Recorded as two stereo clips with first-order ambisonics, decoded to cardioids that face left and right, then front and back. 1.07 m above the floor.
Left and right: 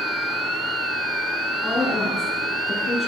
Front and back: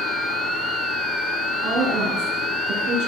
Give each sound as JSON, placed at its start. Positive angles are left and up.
{"t": 1.6, "sound": "a woman speaking", "azimuth_deg": 170, "distance_m": 9.5}